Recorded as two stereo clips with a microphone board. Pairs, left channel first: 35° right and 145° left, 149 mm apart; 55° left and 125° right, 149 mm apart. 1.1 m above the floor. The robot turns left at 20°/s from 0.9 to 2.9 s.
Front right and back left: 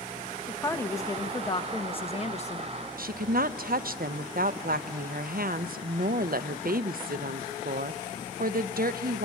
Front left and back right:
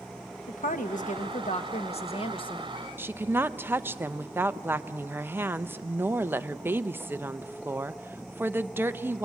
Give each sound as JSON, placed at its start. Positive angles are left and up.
{"t": 0.5, "sound": "a woman speaking", "azimuth_deg": 35, "distance_m": 1.1}
{"t": 3.0, "sound": "a woman speaking", "azimuth_deg": 160, "distance_m": 0.5}